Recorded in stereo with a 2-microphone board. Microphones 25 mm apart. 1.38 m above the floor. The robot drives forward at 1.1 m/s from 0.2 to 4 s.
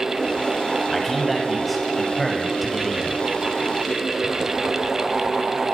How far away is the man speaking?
About 9.5 m.